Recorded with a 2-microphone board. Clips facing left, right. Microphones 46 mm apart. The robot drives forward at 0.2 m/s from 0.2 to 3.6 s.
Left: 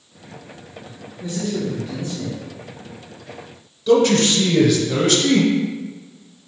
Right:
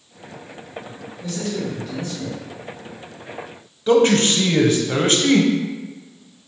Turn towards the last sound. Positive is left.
turn(degrees=-30)  # may be behind; listen again after turning